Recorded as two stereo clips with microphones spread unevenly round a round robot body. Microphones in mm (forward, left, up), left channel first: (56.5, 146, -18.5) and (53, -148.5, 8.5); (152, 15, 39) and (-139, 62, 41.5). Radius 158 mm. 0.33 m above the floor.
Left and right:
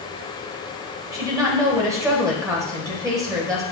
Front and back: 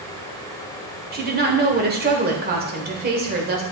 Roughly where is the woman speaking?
Behind.